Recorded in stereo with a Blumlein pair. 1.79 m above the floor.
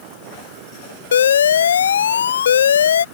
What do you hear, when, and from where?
1.1 s an alarm: 65° left